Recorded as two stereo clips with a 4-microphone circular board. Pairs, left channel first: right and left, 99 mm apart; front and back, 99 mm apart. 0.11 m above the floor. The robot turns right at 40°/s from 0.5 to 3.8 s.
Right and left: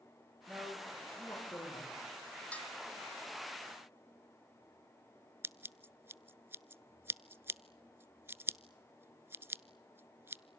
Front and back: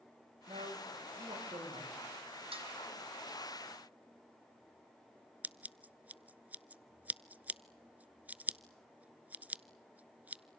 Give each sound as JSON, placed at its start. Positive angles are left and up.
{"t": 0.5, "sound": "a man speaking", "azimuth_deg": 170, "distance_m": 7.5}
{"t": 2.5, "sound": "dishes clattering", "azimuth_deg": -165, "distance_m": 3.5}
{"t": 5.4, "sound": "scissors", "azimuth_deg": 125, "distance_m": 0.5}